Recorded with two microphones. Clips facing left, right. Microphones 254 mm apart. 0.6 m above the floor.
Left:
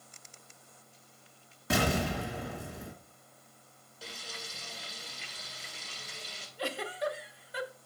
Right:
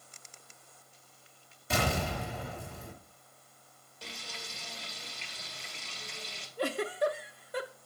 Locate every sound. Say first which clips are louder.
1.7 s an explosion: left 3 dB; 80° left, 3 m
4.0 s frying: even; 5° left (ahead or behind), 2 m
6.6 s a giggle: right 5 dB; 55° right (ahead or behind), 0.7 m